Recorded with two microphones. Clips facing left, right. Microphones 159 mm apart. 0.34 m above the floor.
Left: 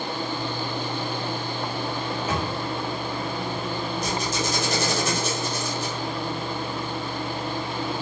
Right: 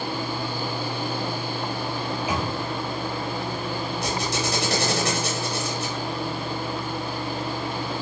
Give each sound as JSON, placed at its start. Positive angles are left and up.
{"t": 2.0, "sound": "a microwave", "side_deg": -10, "distance_m": 1.4}
{"t": 4.0, "sound": "a squeak", "side_deg": -75, "distance_m": 4.0}